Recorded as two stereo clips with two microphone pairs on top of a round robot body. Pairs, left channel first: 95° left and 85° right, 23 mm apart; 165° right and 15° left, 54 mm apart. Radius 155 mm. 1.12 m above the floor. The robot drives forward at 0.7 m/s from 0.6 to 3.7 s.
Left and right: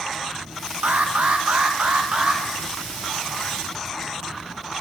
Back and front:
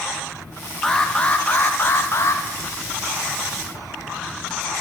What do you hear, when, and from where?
0.8 s an alarm: 85° right, 1.2 m; by 2.4 s 130° right, 1.6 m